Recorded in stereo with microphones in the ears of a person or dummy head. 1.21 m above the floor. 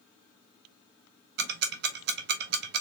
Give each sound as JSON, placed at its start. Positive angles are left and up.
{"t": 1.4, "sound": "ticking", "side_deg": -55, "distance_m": 0.7}